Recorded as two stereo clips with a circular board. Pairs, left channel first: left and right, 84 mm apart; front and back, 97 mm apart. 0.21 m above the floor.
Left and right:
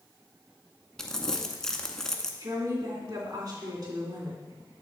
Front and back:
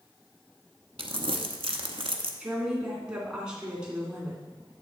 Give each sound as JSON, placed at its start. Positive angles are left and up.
{"t": 1.0, "sound": "crumpling", "azimuth_deg": 175, "distance_m": 0.8}
{"t": 2.4, "sound": "a woman speaking", "azimuth_deg": -100, "distance_m": 2.5}